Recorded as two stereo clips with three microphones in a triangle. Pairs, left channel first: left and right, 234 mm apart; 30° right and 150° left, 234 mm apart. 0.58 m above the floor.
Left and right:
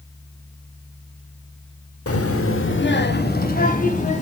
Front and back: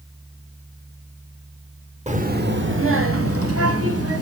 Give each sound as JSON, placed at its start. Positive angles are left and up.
{"t": 2.1, "sound": "a child speaking", "azimuth_deg": 90, "distance_m": 0.9}